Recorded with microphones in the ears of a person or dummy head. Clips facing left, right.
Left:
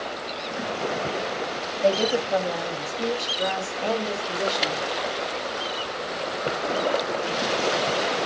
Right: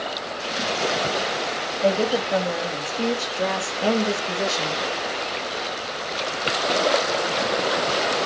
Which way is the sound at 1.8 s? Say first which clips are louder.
Right 1 dB; 20° right (ahead or behind).